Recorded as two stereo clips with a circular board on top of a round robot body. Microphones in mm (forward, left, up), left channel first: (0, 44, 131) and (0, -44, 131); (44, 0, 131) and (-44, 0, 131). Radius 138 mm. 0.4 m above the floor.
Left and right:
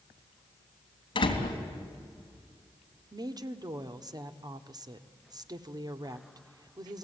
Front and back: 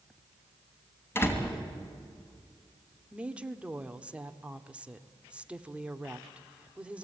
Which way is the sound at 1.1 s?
65° left.